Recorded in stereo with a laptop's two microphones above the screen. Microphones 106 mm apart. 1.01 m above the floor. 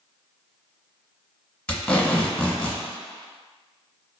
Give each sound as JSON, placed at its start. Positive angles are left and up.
{"t": 1.7, "sound": "tape being pulled", "side_deg": 10, "distance_m": 1.4}